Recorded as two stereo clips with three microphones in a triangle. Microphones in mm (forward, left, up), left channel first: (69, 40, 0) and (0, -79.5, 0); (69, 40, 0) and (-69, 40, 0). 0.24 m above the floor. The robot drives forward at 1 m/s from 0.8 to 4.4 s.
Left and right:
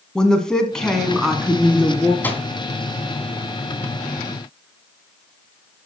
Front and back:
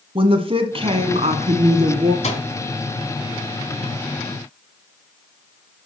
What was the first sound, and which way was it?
A woman speaking, 145° left.